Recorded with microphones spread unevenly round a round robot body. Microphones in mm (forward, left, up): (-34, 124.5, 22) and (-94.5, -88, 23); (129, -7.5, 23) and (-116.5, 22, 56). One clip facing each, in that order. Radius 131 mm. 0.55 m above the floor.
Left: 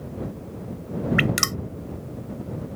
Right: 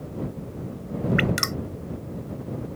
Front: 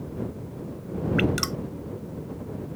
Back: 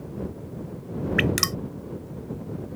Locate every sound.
1.2 s dripping: 120° left